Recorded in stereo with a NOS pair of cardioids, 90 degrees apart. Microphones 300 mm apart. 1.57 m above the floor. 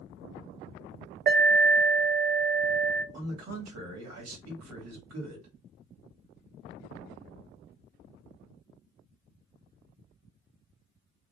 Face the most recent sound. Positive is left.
turn(degrees=-65)